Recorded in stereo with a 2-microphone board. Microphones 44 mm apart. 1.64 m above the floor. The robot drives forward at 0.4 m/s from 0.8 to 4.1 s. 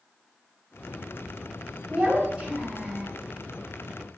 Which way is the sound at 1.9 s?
30° right (ahead or behind).